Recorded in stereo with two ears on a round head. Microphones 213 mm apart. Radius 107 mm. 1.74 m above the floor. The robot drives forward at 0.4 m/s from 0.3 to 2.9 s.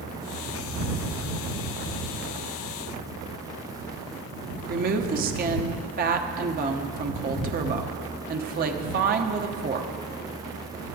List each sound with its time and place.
4.7 s a woman speaking: 40° right (ahead or behind), 1.1 m